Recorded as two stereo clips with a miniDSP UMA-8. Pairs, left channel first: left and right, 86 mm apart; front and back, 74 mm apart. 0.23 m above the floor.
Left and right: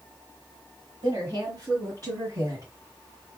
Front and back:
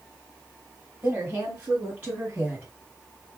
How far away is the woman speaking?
About 2.5 m.